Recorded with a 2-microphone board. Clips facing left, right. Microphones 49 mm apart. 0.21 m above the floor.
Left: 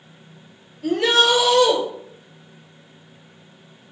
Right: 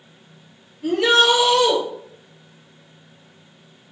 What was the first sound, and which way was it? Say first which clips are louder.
A shout: right 1 dB; 5° right (ahead or behind).